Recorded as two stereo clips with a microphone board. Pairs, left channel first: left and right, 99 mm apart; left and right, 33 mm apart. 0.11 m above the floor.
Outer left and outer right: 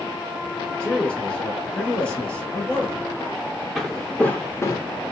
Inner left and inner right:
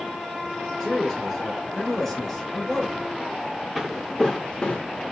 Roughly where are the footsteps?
Centre.